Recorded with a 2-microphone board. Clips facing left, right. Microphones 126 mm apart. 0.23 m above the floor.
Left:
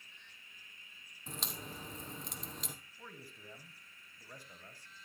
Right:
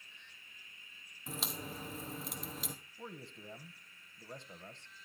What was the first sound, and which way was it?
A crack, centre (ahead or behind).